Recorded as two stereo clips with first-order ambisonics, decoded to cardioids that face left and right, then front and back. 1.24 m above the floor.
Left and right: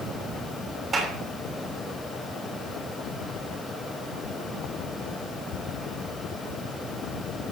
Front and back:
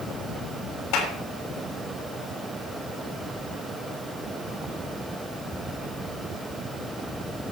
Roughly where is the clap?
Ahead.